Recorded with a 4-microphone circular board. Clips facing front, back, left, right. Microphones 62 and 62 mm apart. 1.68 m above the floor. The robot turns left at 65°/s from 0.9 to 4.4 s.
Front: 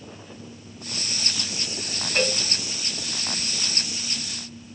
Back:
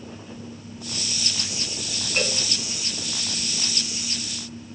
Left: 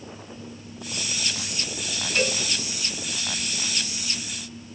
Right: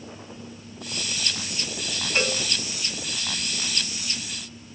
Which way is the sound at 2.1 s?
25° right.